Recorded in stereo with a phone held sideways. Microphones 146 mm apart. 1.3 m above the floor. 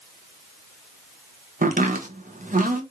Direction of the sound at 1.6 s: 65° right (ahead or behind).